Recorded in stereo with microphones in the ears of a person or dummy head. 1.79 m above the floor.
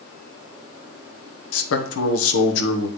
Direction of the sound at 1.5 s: 75° left (ahead or behind).